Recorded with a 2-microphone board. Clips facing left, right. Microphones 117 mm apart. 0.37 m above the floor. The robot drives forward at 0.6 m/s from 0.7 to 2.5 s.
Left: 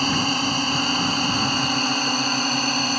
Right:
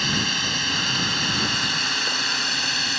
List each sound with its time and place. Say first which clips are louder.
0.0 s a drone: left 5 dB; 40° left (ahead or behind)